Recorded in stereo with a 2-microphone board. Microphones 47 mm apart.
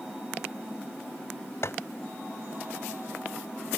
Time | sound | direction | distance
1.6 | tapping | 65° left (ahead or behind) | ?